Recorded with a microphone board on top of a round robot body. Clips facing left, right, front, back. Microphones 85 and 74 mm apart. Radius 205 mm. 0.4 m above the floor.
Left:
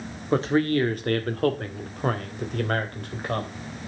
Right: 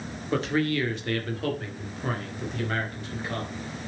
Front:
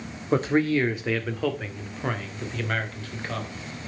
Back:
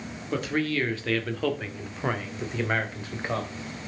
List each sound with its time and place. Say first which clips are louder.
0.3 s a man speaking: left 4 dB, front 5 dB; 40° left, 1.9 m; by 3.6 s 115° left, 3.5 m